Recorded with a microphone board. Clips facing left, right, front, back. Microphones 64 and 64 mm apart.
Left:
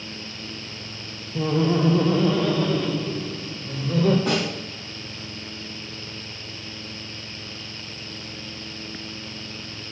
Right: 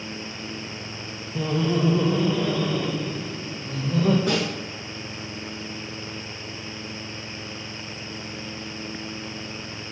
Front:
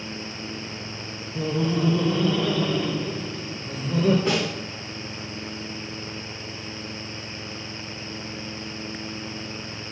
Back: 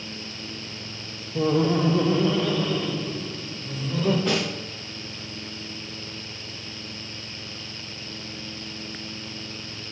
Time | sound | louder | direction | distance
1.4 | laughter | left 2 dB, back 3 dB | 170° left | 1.0 m
4.3 | a snare drum | even, front 1 dB | 85° left | 3.5 m